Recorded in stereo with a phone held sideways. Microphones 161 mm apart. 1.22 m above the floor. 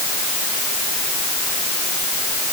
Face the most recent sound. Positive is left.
No sound to turn to.